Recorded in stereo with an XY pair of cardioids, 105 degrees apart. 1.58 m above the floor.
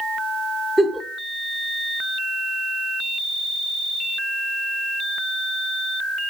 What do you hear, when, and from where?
0.8 s a giggle: 10° right, 0.9 m